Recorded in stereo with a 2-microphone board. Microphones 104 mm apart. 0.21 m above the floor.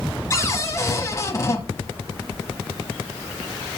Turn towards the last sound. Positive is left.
turn(degrees=30)  # may be behind; listen again after turning